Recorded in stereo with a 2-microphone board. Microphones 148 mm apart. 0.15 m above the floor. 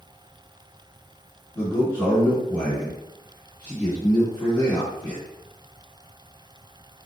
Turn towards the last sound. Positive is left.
turn(degrees=15)  # may be behind; listen again after turning